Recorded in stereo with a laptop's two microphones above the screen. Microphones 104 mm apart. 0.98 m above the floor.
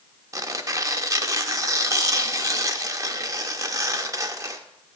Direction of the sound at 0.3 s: 30° right (ahead or behind).